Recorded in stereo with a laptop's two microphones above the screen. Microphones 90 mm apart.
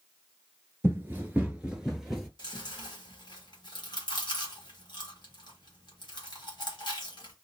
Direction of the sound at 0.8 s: 25° right (ahead or behind).